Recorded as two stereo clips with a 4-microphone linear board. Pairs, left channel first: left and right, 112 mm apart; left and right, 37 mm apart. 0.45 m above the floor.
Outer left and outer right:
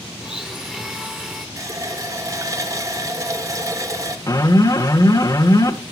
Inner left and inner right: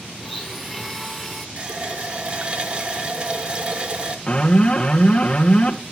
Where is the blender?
5° right (ahead or behind), 1.1 m.